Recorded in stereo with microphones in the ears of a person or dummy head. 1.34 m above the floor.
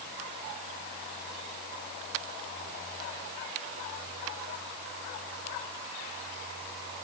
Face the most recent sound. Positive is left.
No sound to turn to.